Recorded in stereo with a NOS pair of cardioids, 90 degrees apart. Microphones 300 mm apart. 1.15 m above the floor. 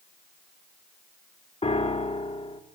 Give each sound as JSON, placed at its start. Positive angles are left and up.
{"t": 1.6, "sound": "a piano", "azimuth_deg": 20, "distance_m": 1.9}